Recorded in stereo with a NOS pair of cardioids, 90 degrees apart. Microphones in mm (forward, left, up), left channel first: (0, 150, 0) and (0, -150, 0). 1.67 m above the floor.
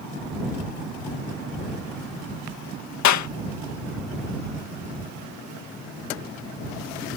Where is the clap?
70° left.